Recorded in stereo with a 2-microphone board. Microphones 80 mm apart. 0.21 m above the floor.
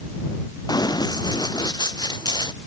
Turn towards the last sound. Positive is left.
turn(degrees=65)  # may be behind; listen again after turning